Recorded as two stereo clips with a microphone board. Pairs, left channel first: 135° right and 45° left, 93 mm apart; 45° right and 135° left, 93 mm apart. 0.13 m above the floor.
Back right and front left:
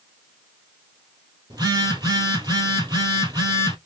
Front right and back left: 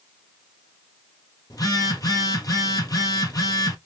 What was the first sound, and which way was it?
A phone buzzing, 5° left.